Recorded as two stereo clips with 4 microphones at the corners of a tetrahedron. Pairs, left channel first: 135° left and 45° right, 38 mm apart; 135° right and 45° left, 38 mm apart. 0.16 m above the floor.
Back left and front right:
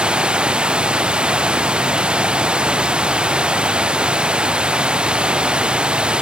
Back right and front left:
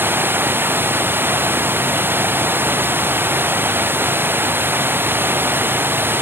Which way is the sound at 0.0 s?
20° left.